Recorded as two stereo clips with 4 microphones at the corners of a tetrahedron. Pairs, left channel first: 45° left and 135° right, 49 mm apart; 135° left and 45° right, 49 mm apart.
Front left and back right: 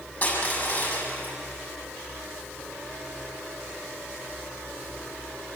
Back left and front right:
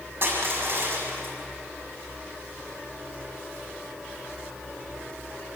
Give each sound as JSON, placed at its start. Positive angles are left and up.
{"t": 0.2, "sound": "crushing", "azimuth_deg": 0, "distance_m": 6.5}